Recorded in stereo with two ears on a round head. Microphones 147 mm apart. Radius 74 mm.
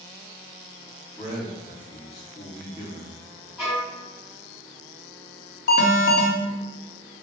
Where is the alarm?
55° left (ahead or behind), 0.8 m.